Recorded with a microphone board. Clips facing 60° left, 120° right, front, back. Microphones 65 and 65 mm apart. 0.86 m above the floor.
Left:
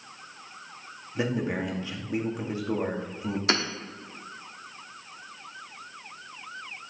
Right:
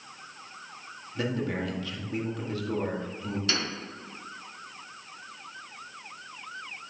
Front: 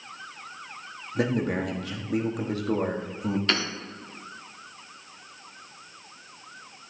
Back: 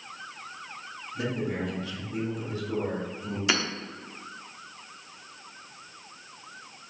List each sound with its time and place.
1.1 s a man speaking: 10° right, 1.5 m
3.5 s hammering: 100° left, 1.1 m